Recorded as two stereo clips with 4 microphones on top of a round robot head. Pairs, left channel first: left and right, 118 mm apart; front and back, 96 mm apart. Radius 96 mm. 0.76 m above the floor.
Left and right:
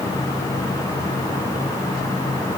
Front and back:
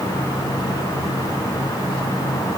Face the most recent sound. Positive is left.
No sound to turn to.